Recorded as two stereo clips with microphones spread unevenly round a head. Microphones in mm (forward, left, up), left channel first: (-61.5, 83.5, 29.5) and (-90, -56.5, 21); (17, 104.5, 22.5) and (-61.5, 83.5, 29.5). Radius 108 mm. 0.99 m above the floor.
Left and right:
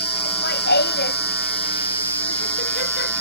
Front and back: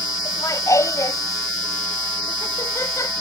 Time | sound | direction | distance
0.2 | laughter | 65° left | ?